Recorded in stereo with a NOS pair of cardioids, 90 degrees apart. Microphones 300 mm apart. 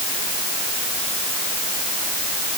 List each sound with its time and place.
Only background noise.